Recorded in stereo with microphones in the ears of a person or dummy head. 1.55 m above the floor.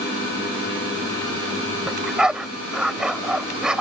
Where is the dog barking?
5° right (ahead or behind).